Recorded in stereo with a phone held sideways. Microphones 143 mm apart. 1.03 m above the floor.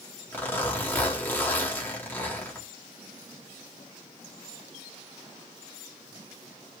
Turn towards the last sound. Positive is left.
turn(degrees=15)  # may be behind; listen again after turning